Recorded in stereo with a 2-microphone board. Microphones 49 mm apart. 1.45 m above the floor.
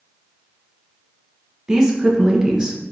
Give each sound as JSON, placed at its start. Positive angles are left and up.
{"t": 1.7, "sound": "a woman speaking", "side_deg": -15, "distance_m": 0.8}